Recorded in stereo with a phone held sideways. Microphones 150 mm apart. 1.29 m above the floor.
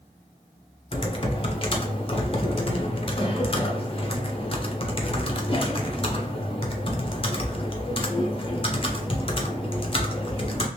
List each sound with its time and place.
0.9 s typing on a keyboard: 40° left (ahead or behind), 0.6 m